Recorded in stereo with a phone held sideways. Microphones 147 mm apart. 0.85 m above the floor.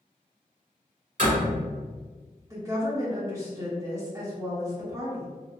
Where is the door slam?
65° right (ahead or behind), 1.2 m.